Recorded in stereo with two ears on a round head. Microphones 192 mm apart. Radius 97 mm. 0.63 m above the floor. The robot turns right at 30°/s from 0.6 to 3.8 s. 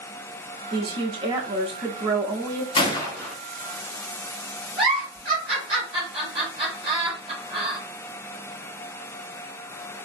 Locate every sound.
0.7 s a woman speaking: 20° right (ahead or behind), 0.6 m
2.8 s a gunshot: 25° left (ahead or behind), 0.8 m; by 3.4 s 5° left (ahead or behind), 0.8 m
4.8 s a giggle: 25° right (ahead or behind), 2 m